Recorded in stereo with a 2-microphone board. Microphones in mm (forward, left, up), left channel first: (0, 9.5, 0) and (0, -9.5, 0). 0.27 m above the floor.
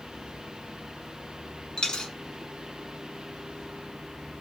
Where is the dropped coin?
50° left (ahead or behind), 0.6 m.